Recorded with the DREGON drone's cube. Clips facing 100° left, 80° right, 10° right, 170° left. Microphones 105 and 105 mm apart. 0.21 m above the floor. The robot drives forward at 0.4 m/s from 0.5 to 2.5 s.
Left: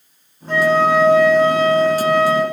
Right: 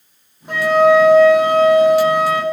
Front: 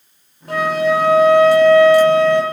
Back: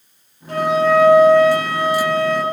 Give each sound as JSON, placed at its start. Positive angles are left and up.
{"t": 0.5, "sound": "a flute", "azimuth_deg": -5, "distance_m": 3.0}